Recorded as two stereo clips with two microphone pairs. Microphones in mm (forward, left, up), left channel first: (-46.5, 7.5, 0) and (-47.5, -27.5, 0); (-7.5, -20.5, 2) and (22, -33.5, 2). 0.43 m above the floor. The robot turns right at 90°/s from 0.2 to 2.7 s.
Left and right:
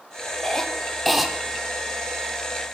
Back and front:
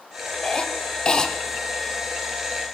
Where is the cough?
115° left, 0.7 m; by 1.3 s 165° right, 0.7 m.